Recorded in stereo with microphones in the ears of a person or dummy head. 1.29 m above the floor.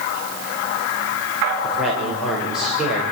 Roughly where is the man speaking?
Centre.